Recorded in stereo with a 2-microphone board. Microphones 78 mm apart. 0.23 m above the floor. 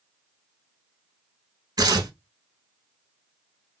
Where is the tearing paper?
60° right (ahead or behind), 0.6 m.